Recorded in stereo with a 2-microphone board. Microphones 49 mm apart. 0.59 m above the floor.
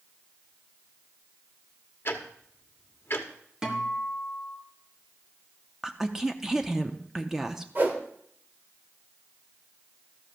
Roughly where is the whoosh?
Right.